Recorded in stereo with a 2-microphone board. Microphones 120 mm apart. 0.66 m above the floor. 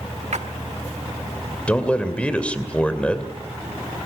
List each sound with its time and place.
0.3 s a splash: 75° right (ahead or behind), 1.4 m
1.7 s a man speaking: 10° left (ahead or behind), 2.5 m